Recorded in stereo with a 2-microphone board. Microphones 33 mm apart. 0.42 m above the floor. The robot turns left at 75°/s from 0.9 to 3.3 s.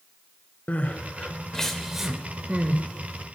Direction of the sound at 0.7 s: 50° left (ahead or behind).